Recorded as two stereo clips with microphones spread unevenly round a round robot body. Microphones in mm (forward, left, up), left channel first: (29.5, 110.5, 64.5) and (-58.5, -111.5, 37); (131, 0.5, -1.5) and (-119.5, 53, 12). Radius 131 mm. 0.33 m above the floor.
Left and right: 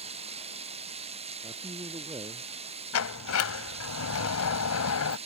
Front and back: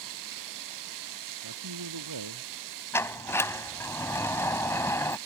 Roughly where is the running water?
Behind.